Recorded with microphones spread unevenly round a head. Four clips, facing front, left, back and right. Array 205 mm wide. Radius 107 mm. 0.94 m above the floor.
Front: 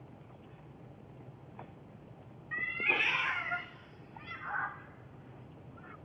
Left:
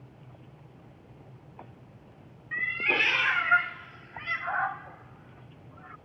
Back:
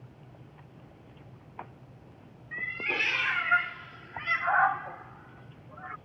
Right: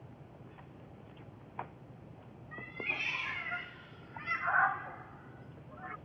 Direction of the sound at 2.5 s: 85° left.